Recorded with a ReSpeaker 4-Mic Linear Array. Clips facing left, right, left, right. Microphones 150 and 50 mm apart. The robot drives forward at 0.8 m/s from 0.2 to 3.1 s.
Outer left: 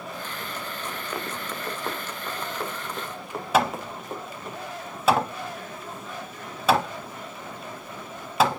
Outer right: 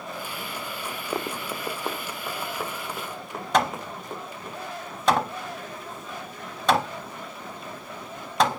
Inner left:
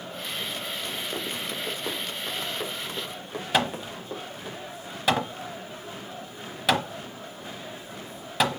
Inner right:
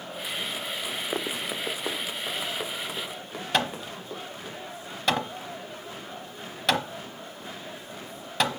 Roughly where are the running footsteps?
Right.